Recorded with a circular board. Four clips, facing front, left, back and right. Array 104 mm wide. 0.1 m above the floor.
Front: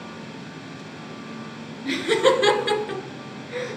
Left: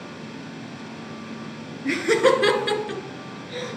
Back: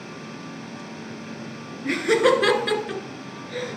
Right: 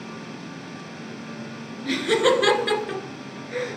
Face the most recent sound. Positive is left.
turn(degrees=-65)